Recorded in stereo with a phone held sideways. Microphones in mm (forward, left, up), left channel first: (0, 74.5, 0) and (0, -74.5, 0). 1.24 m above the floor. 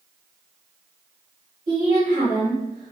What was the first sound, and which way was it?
A woman speaking, 70° right (ahead or behind).